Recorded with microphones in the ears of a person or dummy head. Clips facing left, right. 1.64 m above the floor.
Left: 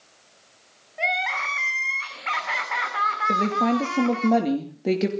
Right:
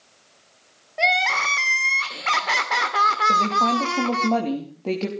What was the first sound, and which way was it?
Crying, 50° right (ahead or behind).